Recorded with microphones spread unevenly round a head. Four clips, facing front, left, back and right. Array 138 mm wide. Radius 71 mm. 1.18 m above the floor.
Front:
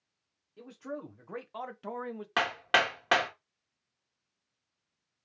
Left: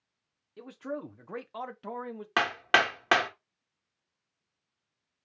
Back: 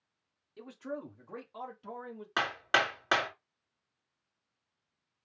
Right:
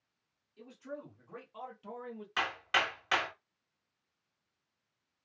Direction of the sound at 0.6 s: 100° left.